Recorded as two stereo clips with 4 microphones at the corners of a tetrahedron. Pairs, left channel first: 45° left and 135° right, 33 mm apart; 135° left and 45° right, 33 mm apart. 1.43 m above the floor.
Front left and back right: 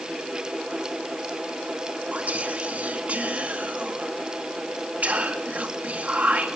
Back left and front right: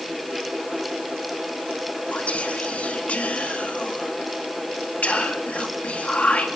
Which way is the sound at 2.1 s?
Straight behind.